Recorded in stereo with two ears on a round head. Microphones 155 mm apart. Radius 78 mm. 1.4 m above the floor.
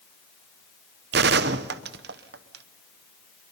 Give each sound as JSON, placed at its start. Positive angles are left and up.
{"t": 1.1, "sound": "a gunshot", "side_deg": -65, "distance_m": 0.8}